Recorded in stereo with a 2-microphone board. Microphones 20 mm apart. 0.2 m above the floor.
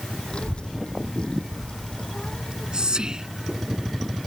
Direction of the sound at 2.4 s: 40° right (ahead or behind).